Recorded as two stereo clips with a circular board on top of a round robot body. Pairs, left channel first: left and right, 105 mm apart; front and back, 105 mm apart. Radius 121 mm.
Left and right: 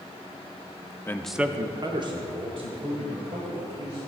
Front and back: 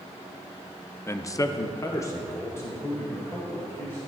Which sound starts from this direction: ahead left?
A man speaking, at 1.1 s.